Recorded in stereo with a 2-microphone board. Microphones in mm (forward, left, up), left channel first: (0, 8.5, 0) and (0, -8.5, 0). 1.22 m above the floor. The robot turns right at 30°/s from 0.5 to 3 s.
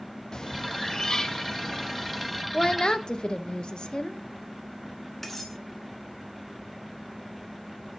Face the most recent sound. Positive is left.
turn(degrees=20)  # may be behind; listen again after turning